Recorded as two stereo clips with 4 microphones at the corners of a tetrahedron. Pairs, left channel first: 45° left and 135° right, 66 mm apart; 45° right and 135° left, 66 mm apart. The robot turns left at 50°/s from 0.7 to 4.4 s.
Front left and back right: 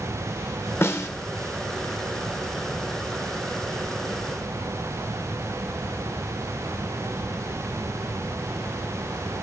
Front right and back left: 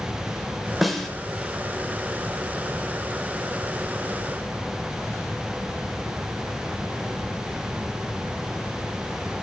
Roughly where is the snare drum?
Ahead left.